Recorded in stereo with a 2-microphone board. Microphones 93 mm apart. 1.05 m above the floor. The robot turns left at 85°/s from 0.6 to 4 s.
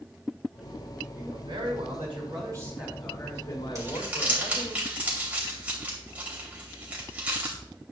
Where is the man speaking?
20° right, 5 m; by 4.8 s 95° left, 5 m.